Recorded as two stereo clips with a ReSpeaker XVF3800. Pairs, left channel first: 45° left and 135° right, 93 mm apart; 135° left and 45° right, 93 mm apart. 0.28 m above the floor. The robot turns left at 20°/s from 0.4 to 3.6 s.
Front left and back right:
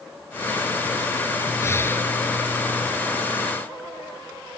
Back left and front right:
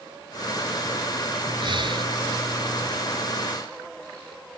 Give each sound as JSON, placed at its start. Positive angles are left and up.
{"t": 1.6, "sound": "breathing", "azimuth_deg": -15}